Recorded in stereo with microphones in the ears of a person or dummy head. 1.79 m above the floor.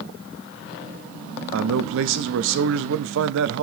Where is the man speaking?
75° right (ahead or behind), 0.8 m.